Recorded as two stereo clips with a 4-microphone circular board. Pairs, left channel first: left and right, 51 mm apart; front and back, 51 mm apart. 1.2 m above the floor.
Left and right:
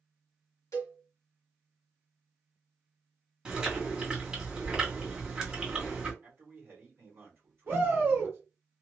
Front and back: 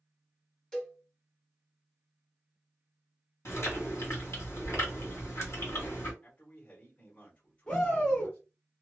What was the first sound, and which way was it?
A cowbell, 80° left.